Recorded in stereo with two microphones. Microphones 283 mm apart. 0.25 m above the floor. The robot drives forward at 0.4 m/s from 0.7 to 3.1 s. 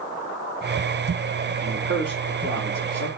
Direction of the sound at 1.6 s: 60° right (ahead or behind).